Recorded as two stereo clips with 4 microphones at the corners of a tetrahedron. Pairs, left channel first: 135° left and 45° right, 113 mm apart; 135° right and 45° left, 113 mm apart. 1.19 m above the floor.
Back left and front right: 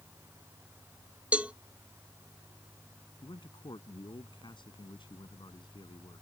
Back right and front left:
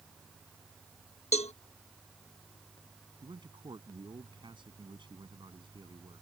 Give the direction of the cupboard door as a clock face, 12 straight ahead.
I don't hear a cupboard door.